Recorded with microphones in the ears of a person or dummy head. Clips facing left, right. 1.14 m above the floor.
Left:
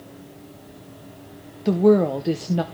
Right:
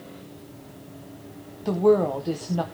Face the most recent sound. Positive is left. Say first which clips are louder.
# left 3 dB
turn(degrees=25)  # may be behind; listen again after turning